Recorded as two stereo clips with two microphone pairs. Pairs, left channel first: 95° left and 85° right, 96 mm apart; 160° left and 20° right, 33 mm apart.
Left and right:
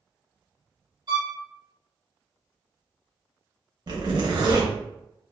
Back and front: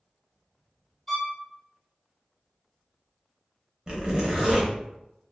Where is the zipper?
75° right, 0.7 m.